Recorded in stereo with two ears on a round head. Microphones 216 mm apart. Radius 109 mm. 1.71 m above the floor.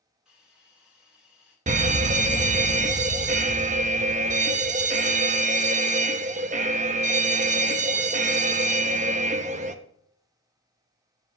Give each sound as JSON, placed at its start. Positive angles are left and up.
{"t": 0.2, "sound": "a hiss", "side_deg": -5, "distance_m": 2.5}
{"t": 1.7, "sound": "a fire alarm", "side_deg": -30, "distance_m": 0.6}